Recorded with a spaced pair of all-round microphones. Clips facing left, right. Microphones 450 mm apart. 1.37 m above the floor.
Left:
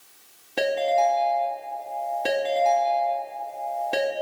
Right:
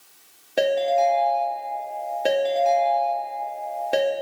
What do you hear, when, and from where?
0.6 s a ringtone: 15° left (ahead or behind), 1.3 m